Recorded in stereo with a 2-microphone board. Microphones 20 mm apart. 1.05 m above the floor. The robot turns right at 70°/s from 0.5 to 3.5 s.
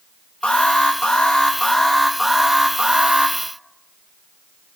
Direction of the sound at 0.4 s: 70° left.